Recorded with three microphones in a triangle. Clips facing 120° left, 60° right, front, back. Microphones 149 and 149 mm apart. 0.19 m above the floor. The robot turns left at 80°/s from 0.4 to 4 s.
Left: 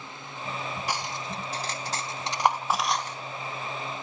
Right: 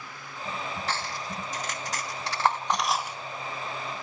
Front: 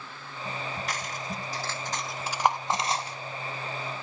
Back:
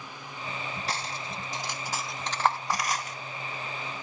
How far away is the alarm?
I don't hear an alarm.